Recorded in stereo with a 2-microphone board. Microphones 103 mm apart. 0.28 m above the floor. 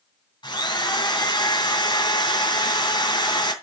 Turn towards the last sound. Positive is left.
turn(degrees=45)  # may be behind; listen again after turning